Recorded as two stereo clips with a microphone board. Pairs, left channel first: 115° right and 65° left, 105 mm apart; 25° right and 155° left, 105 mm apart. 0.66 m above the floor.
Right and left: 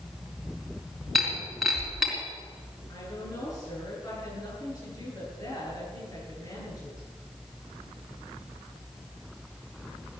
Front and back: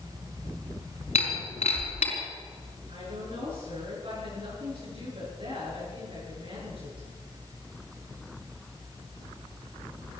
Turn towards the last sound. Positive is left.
turn(degrees=-170)